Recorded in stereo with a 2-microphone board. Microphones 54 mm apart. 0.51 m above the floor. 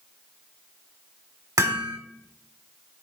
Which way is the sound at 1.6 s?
85° right.